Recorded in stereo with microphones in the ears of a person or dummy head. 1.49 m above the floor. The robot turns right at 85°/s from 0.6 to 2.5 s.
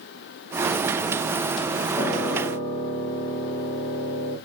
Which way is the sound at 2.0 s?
20° right.